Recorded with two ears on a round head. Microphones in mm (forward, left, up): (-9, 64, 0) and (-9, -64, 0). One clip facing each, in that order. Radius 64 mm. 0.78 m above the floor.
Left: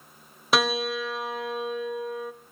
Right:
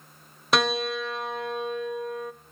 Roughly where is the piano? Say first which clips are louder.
Even; centre.